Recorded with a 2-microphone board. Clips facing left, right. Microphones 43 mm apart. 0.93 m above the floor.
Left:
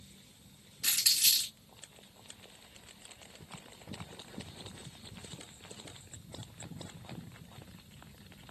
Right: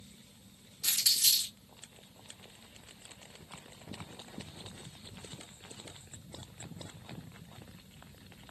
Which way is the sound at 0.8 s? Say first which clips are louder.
Even; 70° left (ahead or behind).